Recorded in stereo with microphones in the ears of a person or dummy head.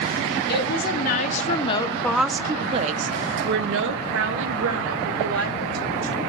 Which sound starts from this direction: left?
A woman speaking, at 0.5 s.